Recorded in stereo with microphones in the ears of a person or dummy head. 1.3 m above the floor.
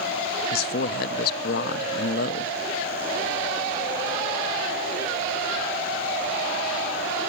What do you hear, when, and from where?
0.5 s a man speaking: 50° left (ahead or behind), 0.7 m